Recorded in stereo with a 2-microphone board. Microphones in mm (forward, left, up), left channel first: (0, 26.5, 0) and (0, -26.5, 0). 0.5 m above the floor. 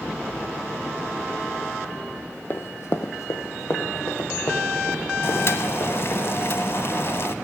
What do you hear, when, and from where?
2.5 s running footsteps: 50° left (ahead or behind), 0.8 m; by 6.2 s 60° left (ahead or behind), 4 m
5.2 s boiling: 55° left (ahead or behind), 0.6 m